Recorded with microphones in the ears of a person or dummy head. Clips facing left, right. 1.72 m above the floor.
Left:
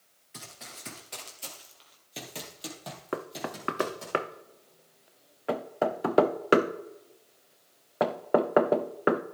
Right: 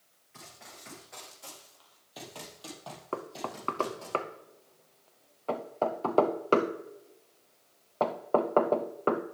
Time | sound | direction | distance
0.3 | running footsteps | 40° left (ahead or behind) | 2.5 m
3.1 | knocking | 20° left (ahead or behind) | 0.6 m